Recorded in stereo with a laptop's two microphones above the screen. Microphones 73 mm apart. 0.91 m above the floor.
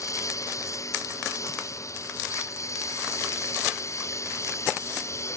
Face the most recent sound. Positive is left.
turn(degrees=45)  # may be behind; listen again after turning